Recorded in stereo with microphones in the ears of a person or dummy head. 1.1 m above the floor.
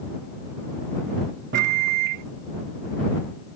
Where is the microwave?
55° right (ahead or behind).